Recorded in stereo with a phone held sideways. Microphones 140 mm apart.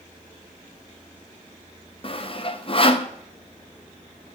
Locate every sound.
2.0 s sawing: 40° left (ahead or behind), 0.6 m